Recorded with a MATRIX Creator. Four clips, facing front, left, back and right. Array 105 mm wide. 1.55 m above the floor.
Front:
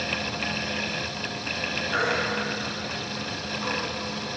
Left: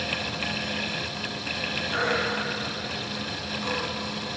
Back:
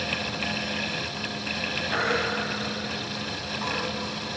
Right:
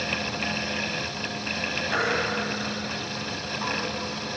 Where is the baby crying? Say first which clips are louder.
Even, even; 125° right, 8.5 m.